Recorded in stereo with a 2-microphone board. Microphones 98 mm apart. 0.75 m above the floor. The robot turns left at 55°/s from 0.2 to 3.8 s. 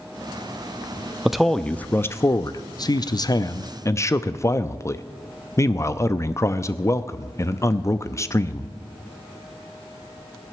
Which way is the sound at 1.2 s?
175° right.